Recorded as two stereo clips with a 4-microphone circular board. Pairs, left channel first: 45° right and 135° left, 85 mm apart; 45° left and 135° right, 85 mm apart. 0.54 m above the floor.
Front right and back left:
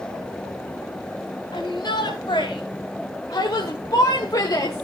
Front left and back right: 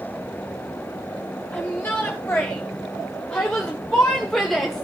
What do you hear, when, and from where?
1.5 s a shout: 25° right, 3.5 m; by 4.8 s 45° right, 1.3 m